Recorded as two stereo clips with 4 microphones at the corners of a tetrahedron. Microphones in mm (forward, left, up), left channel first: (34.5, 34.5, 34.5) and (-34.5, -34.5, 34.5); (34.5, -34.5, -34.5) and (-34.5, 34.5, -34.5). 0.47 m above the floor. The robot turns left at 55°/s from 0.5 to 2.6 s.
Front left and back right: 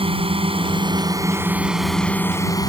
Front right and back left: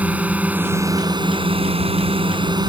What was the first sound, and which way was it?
A drone, 150° right.